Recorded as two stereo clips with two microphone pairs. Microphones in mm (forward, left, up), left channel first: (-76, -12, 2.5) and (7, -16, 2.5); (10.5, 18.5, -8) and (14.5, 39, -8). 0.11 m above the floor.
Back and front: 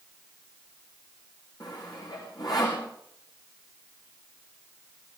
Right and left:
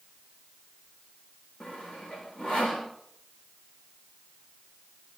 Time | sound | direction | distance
1.6 | sawing | 140° right | 8 m